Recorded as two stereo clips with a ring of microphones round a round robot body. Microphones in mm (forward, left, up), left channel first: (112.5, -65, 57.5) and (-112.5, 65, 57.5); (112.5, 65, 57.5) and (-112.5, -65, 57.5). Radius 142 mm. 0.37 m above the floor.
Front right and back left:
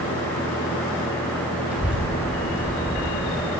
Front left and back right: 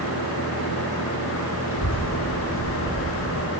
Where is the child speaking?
65° left, 1.7 m.